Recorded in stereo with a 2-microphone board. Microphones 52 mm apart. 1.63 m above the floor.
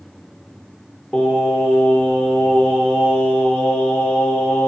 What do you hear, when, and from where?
1.1 s singing: 25° left (ahead or behind), 0.8 m